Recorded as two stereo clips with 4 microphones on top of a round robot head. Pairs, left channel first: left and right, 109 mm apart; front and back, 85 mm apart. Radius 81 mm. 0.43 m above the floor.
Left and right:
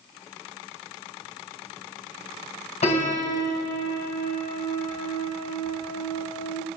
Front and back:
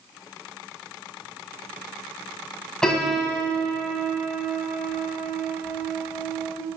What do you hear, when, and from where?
2.8 s a piano: 85° left, 2.5 m